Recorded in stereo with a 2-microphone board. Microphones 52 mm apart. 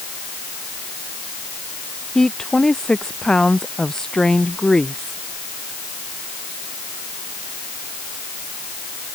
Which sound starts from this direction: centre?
A woman speaking, at 2.1 s.